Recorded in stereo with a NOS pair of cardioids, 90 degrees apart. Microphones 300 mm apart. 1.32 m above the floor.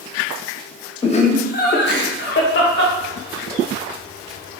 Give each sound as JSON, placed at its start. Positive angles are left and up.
{"t": 1.0, "sound": "laughter", "azimuth_deg": 20, "distance_m": 0.5}